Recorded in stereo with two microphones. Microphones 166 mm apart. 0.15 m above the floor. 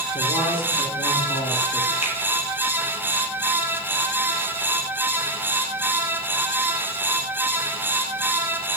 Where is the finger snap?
35° left (ahead or behind), 3 m.